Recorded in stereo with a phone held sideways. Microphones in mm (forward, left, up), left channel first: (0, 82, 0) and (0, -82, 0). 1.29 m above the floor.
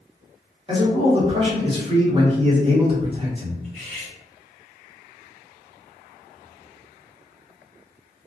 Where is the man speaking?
30° right (ahead or behind), 1.0 m.